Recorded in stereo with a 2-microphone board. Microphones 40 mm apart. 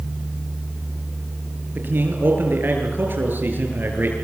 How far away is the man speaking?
About 8 m.